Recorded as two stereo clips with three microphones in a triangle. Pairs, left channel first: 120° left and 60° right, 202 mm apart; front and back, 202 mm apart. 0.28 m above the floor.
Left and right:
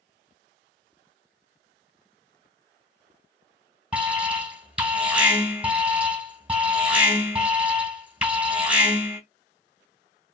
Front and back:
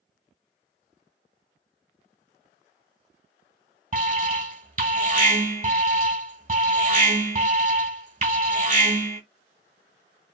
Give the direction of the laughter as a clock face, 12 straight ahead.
No laughter in this recording.